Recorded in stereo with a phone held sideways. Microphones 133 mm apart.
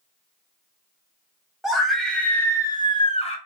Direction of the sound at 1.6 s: 5° right (ahead or behind).